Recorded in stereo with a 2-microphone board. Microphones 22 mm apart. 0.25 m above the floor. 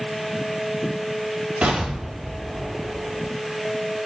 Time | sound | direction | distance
1.6 | an explosion | 75° right (ahead or behind) | 6 m